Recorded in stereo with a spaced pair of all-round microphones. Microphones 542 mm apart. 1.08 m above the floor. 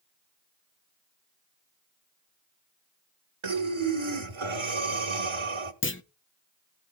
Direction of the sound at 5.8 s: 25° left (ahead or behind).